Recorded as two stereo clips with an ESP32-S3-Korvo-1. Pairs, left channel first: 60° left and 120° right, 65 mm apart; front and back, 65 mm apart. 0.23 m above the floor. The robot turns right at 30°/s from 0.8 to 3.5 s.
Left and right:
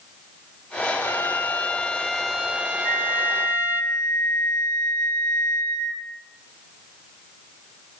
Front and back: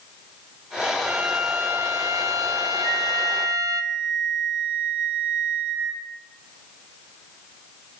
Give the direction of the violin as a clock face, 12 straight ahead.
8 o'clock.